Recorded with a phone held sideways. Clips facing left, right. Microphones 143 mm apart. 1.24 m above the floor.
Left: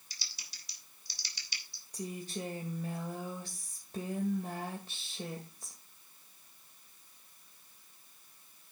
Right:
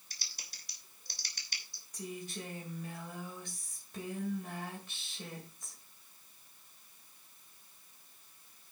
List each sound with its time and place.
0.1 s typing on a keyboard: 50° right (ahead or behind), 3 m
1.9 s a woman speaking: 30° left (ahead or behind), 1.9 m